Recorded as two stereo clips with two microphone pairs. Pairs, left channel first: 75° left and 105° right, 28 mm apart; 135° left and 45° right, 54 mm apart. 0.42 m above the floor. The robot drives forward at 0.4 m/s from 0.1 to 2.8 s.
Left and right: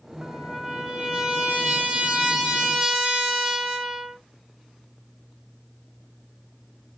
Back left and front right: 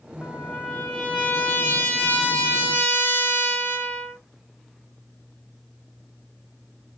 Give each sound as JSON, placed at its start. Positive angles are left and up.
{"t": 0.2, "sound": "a trumpet", "azimuth_deg": -160, "distance_m": 1.3}